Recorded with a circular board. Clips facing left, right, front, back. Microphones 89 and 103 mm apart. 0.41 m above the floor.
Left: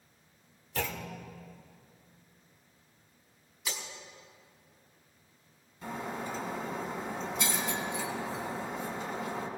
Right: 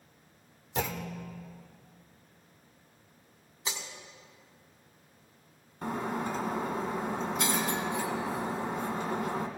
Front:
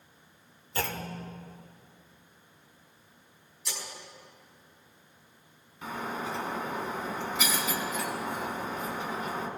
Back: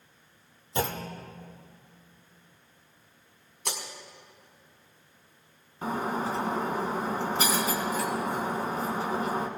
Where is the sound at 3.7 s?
155° right, 1.9 m.